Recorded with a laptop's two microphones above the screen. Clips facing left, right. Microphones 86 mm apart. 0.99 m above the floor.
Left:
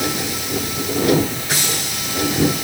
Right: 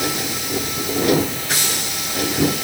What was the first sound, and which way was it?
Only background noise.